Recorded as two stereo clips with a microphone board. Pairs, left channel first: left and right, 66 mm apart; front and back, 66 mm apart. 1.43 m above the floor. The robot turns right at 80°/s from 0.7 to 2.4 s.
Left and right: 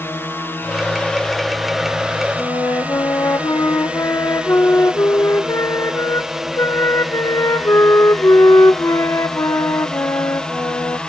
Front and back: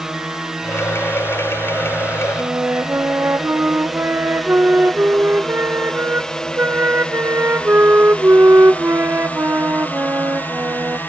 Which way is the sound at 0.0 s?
105° left.